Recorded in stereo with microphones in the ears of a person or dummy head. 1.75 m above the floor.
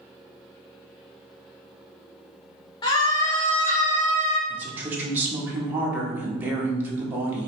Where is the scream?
30° left (ahead or behind), 0.7 m; by 4.4 s 10° left (ahead or behind), 1.5 m.